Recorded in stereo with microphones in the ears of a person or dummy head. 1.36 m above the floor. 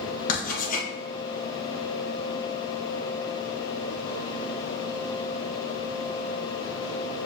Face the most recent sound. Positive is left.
turn(degrees=40)  # may be behind; listen again after turning